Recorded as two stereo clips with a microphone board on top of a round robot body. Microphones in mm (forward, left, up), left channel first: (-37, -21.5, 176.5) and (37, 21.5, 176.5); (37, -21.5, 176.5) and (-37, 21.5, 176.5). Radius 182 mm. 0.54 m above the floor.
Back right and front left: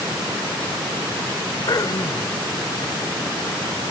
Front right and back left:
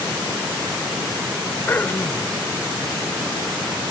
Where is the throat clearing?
100° right.